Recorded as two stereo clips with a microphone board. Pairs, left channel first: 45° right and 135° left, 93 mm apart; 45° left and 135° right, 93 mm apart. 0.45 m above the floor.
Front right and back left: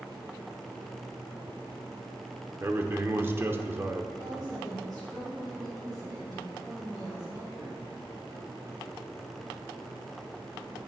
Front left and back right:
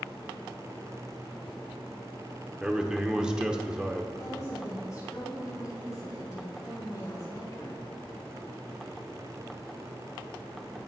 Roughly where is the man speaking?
Behind left.